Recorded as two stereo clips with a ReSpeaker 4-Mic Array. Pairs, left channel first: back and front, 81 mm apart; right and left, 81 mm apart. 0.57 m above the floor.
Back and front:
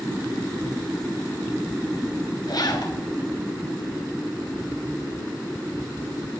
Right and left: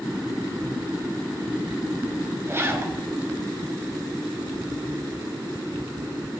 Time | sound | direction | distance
2.5 | a zipper | 150° left | 1.3 m